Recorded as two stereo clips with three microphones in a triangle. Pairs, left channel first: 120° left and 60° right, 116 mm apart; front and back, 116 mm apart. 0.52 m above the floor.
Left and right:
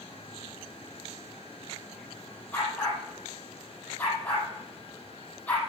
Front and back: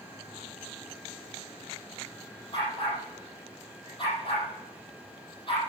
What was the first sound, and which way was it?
A dog barking, 45° left.